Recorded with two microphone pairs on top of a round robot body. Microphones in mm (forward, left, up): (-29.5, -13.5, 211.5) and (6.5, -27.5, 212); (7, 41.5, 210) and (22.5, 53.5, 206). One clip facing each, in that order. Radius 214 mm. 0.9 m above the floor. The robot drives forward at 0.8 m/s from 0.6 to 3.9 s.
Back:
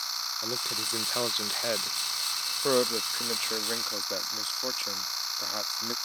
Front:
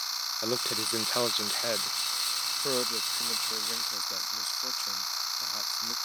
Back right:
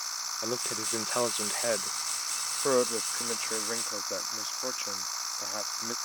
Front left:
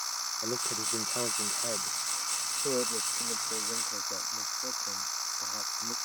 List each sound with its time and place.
0.4 s a man speaking: 80° right; by 6.0 s 150° right